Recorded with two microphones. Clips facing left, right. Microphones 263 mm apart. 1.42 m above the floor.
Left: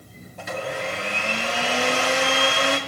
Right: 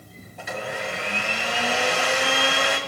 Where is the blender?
50° left (ahead or behind), 1.9 m.